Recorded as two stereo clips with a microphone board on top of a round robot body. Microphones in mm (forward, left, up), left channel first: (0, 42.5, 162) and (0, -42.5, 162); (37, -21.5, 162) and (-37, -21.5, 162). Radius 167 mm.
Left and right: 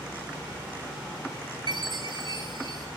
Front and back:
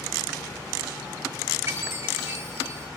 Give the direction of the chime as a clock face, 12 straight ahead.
4 o'clock.